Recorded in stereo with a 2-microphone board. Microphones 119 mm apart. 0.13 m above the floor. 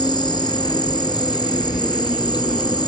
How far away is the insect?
About 0.8 m.